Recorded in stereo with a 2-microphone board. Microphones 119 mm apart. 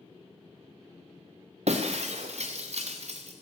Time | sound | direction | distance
1.7 | breaking glass | 65° right (ahead or behind) | 1.7 m